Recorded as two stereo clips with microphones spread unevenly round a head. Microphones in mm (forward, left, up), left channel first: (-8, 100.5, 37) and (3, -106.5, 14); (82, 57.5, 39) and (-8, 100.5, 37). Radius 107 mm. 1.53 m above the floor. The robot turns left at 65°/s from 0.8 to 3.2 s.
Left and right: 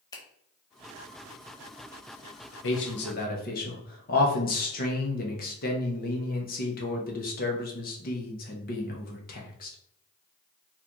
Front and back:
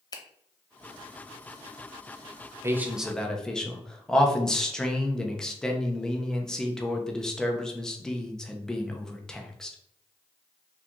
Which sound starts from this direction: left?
A man speaking, at 2.6 s.